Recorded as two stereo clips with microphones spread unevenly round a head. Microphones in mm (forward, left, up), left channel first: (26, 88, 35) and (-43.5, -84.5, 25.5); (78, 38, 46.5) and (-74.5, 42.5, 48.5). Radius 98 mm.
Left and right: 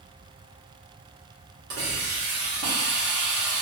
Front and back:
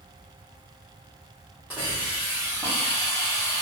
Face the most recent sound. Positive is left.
turn(degrees=-105)